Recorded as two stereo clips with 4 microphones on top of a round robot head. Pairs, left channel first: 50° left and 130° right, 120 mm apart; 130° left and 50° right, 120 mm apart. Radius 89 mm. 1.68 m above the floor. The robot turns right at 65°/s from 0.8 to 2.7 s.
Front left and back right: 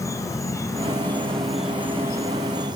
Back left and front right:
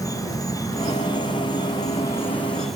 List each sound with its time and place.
0.0 s an insect: 95° left, 0.9 m; by 2.8 s 145° right, 0.9 m